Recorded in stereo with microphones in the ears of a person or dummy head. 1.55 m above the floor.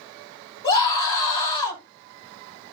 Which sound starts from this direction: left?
A scream, at 0.6 s.